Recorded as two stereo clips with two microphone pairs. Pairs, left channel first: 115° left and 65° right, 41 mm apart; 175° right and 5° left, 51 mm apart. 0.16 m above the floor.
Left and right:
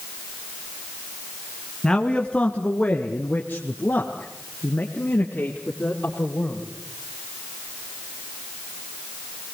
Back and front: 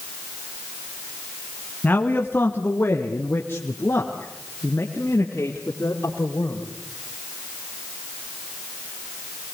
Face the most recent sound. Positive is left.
turn(degrees=155)